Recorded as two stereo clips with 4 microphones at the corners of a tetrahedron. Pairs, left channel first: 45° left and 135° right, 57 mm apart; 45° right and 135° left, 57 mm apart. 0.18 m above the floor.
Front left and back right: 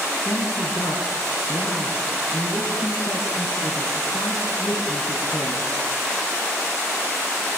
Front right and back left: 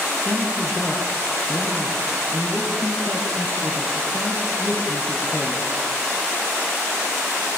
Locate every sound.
0.2 s a man speaking: 5° left, 3.5 m